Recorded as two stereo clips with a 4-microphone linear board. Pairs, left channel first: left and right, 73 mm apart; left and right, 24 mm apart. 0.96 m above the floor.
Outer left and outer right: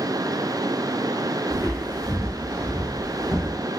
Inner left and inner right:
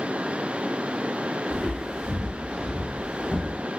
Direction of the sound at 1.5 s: 25° right (ahead or behind).